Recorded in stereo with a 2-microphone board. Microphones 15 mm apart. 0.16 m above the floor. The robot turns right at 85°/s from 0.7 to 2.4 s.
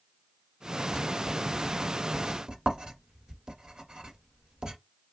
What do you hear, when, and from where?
0.9 s writing: 20° left (ahead or behind), 1.3 m; by 4.8 s 50° right (ahead or behind), 1.3 m